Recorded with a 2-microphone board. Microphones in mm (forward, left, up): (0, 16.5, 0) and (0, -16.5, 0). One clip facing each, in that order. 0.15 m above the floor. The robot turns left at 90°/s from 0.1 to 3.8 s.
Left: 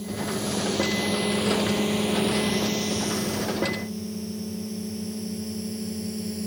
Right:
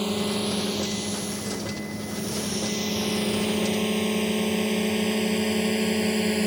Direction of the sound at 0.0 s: 65° right (ahead or behind).